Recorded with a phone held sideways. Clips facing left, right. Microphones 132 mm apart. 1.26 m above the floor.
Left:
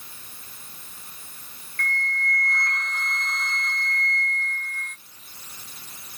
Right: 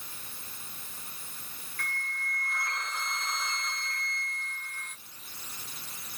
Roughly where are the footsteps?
No footsteps in this recording.